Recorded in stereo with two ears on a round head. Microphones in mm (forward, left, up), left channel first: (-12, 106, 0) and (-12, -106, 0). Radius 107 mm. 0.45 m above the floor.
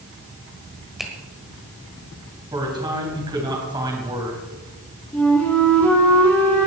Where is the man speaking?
20° right (ahead or behind), 3.5 m.